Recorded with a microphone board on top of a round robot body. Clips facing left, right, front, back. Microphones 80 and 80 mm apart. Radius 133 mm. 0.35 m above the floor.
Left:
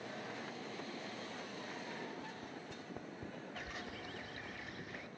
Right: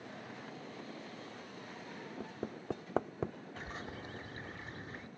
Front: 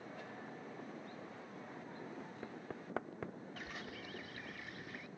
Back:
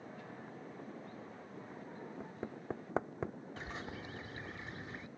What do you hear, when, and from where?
2.2 s hammering: 110° right
3.6 s a bird: 130° right